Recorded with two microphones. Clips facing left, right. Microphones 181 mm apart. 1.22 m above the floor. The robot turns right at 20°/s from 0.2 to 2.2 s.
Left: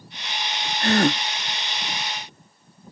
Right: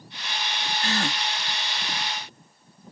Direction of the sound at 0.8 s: 60° left (ahead or behind).